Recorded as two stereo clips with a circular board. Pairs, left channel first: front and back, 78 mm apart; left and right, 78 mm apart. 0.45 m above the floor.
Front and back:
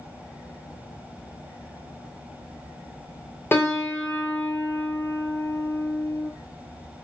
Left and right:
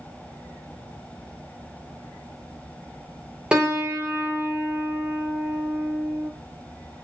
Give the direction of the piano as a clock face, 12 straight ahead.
1 o'clock.